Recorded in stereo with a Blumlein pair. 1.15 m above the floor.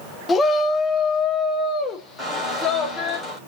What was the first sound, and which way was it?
A shout, 20° left.